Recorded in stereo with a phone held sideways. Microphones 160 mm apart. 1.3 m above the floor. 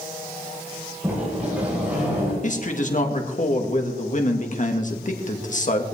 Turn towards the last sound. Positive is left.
turn(degrees=50)  # may be behind; listen again after turning